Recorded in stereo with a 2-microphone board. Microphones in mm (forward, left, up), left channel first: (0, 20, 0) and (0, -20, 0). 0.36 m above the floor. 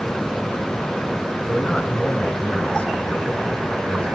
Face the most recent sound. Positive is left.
turn(degrees=20)  # may be behind; listen again after turning